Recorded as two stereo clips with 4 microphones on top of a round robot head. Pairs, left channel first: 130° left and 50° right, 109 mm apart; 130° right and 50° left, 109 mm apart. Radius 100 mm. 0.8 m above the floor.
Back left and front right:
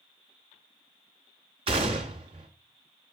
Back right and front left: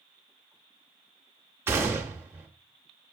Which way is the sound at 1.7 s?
15° right.